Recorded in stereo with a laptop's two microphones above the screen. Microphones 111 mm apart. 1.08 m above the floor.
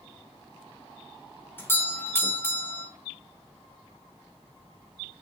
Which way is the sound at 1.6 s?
20° left (ahead or behind).